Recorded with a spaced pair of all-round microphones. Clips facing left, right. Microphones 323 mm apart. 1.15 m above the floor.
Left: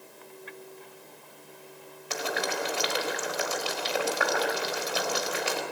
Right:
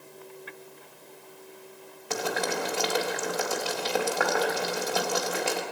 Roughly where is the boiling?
Right.